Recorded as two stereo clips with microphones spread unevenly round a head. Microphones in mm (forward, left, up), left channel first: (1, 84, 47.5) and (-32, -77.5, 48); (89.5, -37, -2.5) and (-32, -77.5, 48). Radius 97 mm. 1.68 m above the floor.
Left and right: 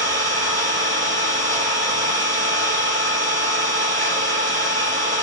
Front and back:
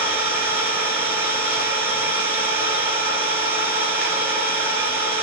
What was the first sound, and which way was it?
An engine running, 95° right.